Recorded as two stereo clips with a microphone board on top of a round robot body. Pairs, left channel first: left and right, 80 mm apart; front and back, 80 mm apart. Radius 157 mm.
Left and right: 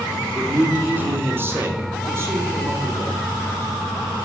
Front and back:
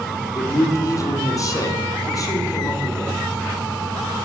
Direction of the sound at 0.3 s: 30° right.